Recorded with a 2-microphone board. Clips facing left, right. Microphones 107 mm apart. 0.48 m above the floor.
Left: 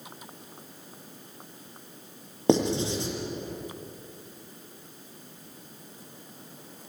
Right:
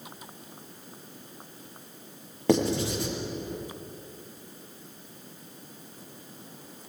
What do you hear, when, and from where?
2.5 s writing: 20° left (ahead or behind), 6.5 m